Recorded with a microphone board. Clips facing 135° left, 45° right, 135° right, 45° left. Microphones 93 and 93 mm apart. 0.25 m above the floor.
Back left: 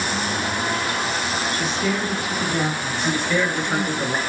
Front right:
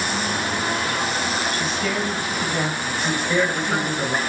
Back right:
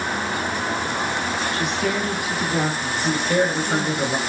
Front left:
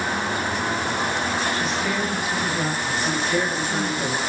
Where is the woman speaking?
155° right, 5 m.